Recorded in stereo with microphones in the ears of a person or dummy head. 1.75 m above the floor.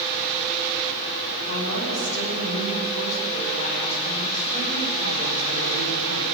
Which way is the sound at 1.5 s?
80° left.